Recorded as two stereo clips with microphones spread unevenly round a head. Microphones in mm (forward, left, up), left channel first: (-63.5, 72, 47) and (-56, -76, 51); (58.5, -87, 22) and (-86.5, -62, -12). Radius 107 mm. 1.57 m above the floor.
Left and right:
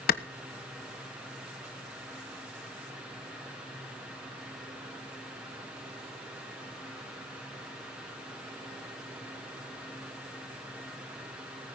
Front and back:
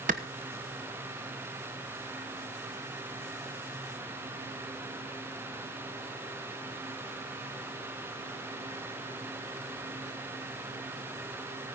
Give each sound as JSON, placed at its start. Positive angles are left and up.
{"t": 0.1, "sound": "a clap", "azimuth_deg": 115, "distance_m": 1.1}